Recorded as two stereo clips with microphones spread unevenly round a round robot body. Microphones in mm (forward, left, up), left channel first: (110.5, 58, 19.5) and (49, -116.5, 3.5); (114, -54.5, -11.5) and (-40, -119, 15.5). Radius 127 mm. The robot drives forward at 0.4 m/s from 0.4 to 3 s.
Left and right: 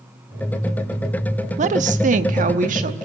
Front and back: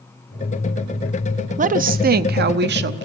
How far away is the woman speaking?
About 0.7 m.